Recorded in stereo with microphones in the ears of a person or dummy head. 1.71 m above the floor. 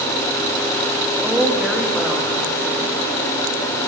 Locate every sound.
1.2 s a woman speaking: centre (ahead or behind), 4 m